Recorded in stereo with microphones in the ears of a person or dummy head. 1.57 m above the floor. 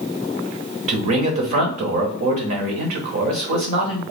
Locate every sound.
0.9 s a man speaking: 45° right (ahead or behind), 0.8 m